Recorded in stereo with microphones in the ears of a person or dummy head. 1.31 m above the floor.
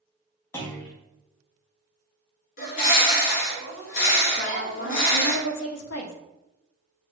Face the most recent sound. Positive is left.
turn(degrees=75)  # may be behind; listen again after turning